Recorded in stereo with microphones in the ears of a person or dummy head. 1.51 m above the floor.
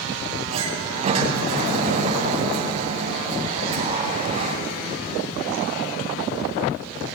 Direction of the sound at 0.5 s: 40° right (ahead or behind).